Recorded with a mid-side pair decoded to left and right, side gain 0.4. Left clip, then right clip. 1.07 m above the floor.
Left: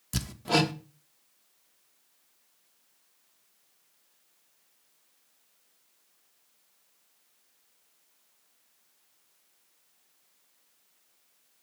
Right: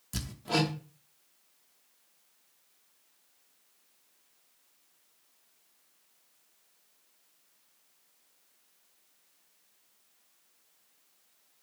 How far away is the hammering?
About 0.9 m.